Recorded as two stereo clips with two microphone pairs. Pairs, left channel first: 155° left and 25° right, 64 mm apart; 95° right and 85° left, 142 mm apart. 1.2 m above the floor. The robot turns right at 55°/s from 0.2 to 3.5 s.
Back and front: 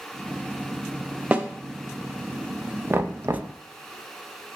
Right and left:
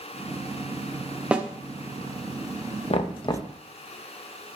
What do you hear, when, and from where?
1.3 s a snare drum: 10° left, 0.5 m; by 1.5 s 20° left, 0.5 m
2.9 s knocking: 75° right, 0.5 m; by 3.5 s 40° right, 0.5 m